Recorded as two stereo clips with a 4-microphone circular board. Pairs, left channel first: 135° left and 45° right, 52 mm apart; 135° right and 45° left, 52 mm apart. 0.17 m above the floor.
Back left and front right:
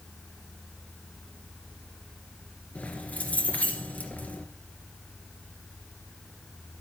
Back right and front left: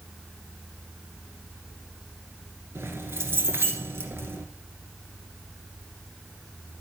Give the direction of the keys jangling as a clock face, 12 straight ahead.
9 o'clock.